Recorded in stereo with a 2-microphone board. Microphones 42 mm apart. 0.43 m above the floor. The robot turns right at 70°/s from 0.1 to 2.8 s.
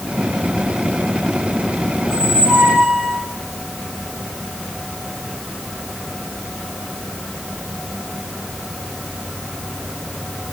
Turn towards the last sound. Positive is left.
turn(degrees=-90)